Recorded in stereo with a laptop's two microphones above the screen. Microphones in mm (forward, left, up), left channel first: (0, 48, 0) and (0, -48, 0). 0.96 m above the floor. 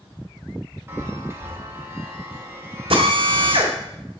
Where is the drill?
70° right (ahead or behind), 1.6 m.